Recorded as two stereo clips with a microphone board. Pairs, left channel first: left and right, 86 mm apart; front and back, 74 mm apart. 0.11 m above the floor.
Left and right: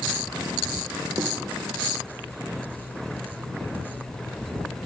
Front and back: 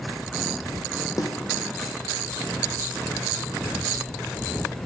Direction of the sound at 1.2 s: 40° right.